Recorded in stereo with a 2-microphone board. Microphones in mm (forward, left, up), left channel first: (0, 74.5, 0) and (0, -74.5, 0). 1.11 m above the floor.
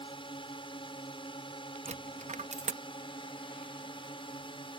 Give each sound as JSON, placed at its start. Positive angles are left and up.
{"t": 0.0, "sound": "a drone", "side_deg": 35}
{"t": 1.9, "sound": "a dropped coin", "side_deg": -50}